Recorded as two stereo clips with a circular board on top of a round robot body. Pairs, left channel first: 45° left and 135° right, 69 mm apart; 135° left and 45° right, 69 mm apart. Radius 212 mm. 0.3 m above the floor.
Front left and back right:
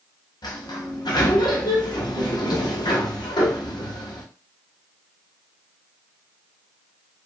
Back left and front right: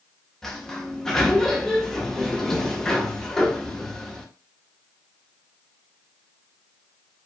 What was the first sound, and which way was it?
A sliding door, 50° left.